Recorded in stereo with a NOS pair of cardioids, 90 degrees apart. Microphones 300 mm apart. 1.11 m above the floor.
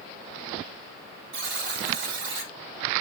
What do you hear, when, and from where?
1.3 s a buzzer: 60° right, 1.5 m